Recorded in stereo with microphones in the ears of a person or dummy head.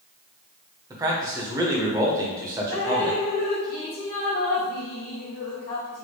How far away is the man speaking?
About 0.8 m.